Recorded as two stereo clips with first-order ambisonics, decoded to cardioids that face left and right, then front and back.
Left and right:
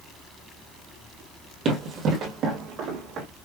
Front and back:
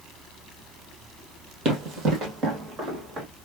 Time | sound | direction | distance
1.6 | running footsteps | 145° right | 2.0 m